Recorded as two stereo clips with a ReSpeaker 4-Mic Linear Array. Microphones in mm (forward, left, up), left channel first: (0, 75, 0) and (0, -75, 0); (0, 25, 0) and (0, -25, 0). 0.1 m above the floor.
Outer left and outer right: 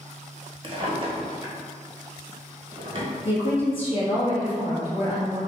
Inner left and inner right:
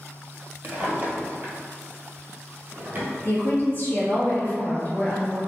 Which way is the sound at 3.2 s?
40° left (ahead or behind).